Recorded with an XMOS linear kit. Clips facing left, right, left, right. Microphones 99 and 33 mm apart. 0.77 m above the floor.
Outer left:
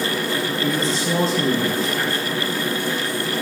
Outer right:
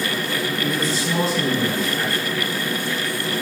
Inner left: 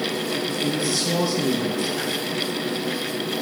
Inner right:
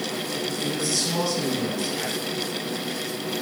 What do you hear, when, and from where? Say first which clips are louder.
0.6 s a man speaking: outer left 2 dB, inner left 3 dB; 35° left (ahead or behind), 3 m